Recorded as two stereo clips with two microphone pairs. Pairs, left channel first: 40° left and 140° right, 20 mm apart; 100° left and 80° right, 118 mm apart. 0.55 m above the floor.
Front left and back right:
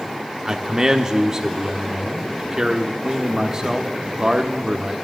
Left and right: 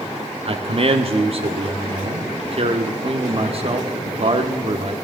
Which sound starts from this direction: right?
A man speaking, at 0.5 s.